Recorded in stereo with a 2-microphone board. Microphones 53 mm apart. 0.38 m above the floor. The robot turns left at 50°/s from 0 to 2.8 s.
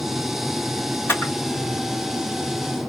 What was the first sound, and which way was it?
A camera shutter, 45° left (ahead or behind).